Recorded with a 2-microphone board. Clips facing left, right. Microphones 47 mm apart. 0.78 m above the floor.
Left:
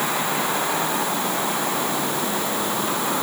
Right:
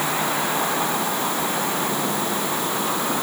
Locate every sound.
Only background noise.